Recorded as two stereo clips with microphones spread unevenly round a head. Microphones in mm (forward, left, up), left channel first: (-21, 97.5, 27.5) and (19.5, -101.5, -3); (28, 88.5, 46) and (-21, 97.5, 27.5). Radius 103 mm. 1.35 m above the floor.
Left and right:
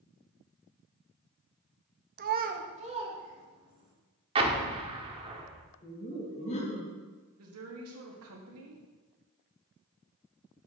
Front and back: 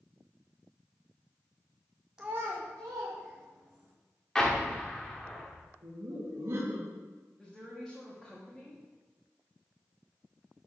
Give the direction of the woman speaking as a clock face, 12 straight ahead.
3 o'clock.